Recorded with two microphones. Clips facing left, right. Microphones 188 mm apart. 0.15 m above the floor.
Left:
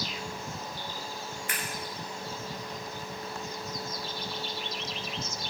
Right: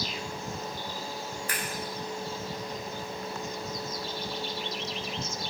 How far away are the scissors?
About 1.0 m.